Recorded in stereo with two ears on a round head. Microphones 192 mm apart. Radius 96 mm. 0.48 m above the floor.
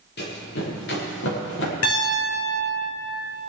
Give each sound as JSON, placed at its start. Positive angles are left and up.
{"t": 0.2, "sound": "running footsteps", "side_deg": 50, "distance_m": 5.5}
{"t": 1.8, "sound": "a piano", "side_deg": 75, "distance_m": 3.5}